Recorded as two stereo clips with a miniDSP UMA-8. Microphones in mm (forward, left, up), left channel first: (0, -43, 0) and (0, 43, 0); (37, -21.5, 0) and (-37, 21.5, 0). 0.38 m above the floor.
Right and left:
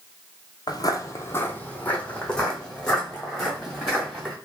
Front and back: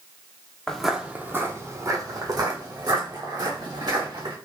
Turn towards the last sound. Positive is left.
turn(degrees=180)